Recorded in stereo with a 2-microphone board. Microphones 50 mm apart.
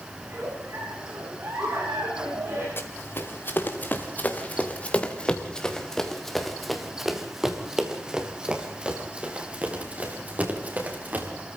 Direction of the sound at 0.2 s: 60° right (ahead or behind).